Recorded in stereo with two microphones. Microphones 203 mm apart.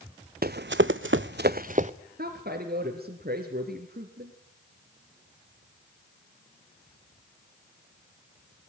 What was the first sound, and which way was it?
Running footsteps, 50° right (ahead or behind).